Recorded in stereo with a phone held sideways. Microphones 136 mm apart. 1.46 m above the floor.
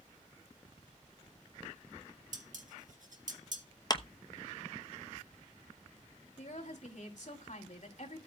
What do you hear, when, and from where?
2.3 s dishes clattering: 70° right (ahead or behind), 1.7 m
3.9 s a clap: 30° left (ahead or behind), 0.9 m
6.4 s a woman speaking: 60° left (ahead or behind), 3.5 m